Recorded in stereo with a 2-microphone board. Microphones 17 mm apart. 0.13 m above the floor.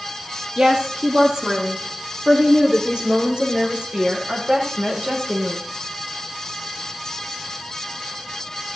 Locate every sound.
0.6 s a woman speaking: 55° right (ahead or behind), 3.5 m; by 5.6 s 75° right (ahead or behind), 8 m